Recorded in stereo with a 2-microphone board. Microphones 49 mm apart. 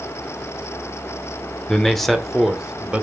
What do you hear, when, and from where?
1.7 s a man speaking: 15° left (ahead or behind), 1.3 m; by 3.0 s 20° right (ahead or behind), 1.3 m